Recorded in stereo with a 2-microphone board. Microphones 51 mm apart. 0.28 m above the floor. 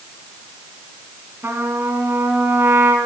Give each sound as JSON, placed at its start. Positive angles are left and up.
{"t": 1.4, "sound": "a trumpet", "side_deg": -60, "distance_m": 2.0}